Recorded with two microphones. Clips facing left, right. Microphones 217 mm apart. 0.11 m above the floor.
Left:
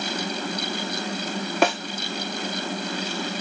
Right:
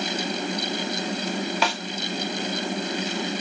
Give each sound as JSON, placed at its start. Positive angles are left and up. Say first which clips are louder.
{"t": 1.6, "sound": "a snare drum", "louder": "left 11 dB", "side_deg": 55, "distance_m": 2.5}